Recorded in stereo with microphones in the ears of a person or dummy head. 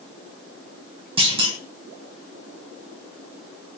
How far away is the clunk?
About 0.8 m.